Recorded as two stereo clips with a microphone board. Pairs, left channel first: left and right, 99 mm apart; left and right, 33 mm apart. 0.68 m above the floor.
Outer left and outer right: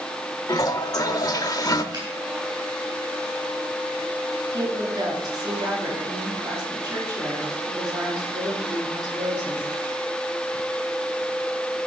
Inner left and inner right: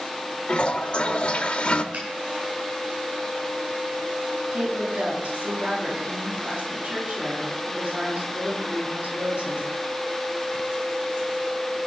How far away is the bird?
I don't hear a bird.